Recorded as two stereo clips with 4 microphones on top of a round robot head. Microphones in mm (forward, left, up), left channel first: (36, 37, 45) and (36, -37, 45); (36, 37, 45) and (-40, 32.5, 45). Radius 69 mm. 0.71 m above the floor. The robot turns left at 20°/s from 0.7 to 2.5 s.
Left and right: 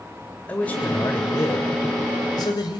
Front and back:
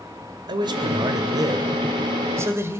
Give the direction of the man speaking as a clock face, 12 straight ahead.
7 o'clock.